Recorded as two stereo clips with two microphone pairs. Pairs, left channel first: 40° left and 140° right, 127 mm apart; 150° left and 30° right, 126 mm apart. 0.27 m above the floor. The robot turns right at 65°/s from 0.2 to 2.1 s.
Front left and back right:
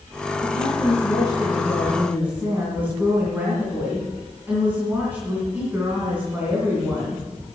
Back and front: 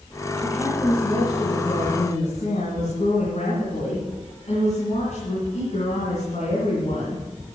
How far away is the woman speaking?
About 3 m.